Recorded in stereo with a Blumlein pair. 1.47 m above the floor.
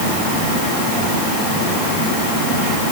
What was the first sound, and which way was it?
Only background noise.